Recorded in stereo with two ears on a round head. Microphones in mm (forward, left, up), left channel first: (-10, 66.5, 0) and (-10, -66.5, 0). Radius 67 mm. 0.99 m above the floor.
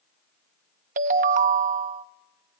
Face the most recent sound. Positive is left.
turn(degrees=-60)  # may be behind; listen again after turning